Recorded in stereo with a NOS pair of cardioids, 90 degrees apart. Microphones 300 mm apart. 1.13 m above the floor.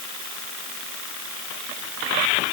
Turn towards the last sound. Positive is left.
No sound to turn to.